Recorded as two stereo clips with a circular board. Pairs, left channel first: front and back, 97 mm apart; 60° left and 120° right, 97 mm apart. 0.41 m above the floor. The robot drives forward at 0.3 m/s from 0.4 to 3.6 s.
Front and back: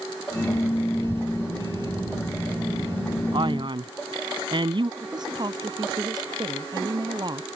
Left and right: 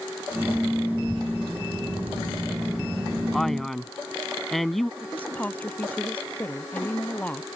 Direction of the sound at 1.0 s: 145° left.